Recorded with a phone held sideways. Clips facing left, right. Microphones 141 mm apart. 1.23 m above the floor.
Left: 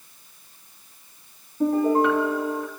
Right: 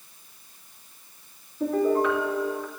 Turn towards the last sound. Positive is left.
turn(degrees=75)  # may be behind; listen again after turning